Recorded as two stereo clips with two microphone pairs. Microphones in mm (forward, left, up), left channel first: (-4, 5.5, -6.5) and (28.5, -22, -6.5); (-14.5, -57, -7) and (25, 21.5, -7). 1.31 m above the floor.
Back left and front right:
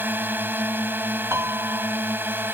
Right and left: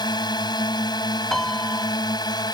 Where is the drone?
80° right.